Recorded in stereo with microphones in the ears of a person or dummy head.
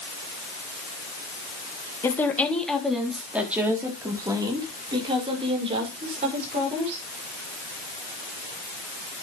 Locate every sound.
2.0 s a woman speaking: 15° left (ahead or behind), 3 m; by 7.0 s 35° right (ahead or behind), 6.5 m